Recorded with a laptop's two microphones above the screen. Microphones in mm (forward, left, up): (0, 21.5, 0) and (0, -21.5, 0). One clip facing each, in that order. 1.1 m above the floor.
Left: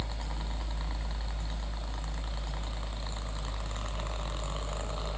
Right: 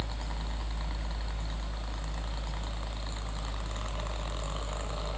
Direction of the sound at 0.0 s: 50° right (ahead or behind).